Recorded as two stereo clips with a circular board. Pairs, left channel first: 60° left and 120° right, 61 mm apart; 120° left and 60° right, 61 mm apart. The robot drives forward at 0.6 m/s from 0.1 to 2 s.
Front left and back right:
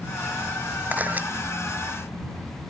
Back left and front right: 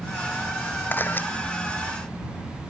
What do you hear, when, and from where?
0.9 s a camera shutter: straight behind